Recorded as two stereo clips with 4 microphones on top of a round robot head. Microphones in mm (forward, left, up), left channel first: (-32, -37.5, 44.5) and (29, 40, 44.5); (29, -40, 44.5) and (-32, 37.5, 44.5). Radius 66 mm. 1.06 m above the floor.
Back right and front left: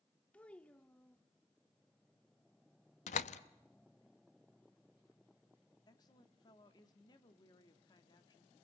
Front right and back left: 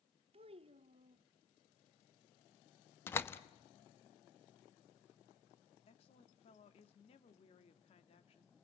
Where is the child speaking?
155° left, 0.9 m.